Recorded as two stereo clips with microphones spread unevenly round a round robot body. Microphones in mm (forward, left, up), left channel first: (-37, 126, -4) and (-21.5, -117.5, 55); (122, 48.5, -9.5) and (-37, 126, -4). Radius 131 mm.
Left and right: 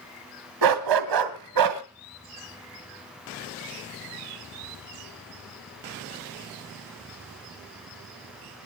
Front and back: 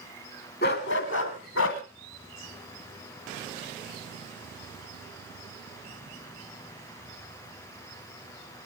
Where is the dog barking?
85° right, 1.8 m; by 1.8 s 60° right, 1.7 m.